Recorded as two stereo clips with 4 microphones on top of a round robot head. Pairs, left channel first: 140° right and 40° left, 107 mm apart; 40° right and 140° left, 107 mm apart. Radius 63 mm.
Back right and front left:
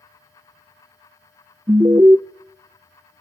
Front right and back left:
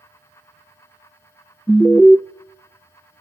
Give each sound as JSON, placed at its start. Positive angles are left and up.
{"t": 1.7, "sound": "an alarm", "azimuth_deg": 25, "distance_m": 0.6}